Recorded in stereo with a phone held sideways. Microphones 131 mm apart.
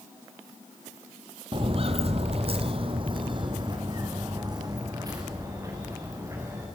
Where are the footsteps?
40° right (ahead or behind), 1.2 m; by 6.7 s 25° right (ahead or behind), 5.5 m.